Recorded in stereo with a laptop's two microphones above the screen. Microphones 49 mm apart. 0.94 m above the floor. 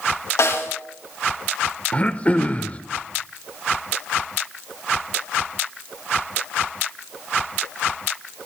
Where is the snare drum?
80° left, 3 m.